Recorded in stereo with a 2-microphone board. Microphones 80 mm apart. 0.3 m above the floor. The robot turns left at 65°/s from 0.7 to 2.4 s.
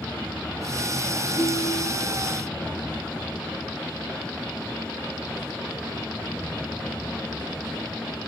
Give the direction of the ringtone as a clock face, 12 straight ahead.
8 o'clock.